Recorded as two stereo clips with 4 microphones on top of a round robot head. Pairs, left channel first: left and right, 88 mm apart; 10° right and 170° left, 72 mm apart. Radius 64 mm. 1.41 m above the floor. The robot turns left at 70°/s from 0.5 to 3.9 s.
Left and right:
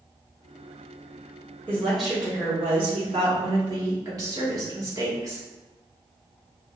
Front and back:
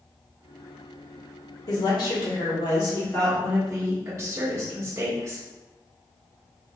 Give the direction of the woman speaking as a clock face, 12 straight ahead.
11 o'clock.